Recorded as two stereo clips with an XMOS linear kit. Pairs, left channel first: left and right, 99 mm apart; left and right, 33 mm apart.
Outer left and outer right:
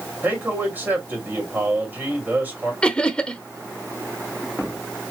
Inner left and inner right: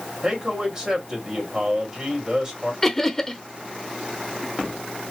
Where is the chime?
No chime in this recording.